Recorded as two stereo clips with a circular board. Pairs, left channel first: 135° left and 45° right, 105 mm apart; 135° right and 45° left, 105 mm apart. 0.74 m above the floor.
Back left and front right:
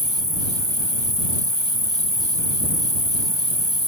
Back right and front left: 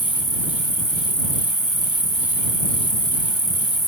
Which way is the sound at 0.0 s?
140° left.